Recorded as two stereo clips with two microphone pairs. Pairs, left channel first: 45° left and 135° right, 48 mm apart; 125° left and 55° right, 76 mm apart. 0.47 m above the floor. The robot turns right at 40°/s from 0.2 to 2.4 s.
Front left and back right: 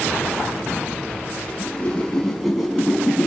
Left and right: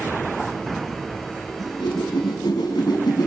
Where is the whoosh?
100° left, 4 m; by 3.3 s 135° left, 4 m.